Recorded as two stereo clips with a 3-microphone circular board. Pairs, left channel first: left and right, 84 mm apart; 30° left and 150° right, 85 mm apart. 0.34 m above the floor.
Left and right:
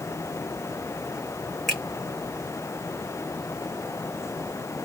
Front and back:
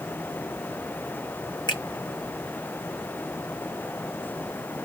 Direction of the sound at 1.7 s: Straight ahead.